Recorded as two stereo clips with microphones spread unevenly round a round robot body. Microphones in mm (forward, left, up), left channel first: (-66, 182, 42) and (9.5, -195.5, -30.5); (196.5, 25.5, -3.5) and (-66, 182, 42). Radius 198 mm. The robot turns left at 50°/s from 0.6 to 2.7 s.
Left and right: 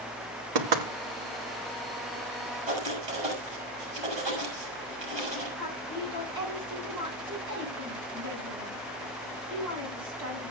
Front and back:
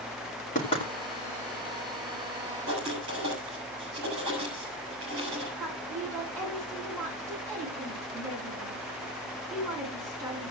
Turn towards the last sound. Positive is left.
turn(degrees=-125)